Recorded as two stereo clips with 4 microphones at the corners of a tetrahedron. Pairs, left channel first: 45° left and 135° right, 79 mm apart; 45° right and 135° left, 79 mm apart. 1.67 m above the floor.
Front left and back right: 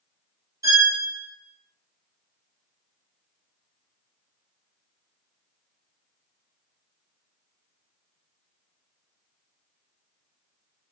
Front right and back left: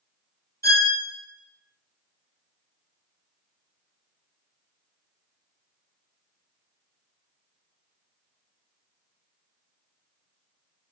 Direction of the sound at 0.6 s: 95° right.